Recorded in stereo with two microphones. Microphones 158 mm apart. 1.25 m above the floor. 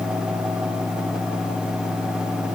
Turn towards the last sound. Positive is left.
No sound to turn to.